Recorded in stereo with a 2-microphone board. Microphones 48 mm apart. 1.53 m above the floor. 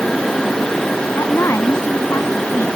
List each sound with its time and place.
1.2 s a woman speaking: 65° left (ahead or behind); by 2.7 s 70° left (ahead or behind)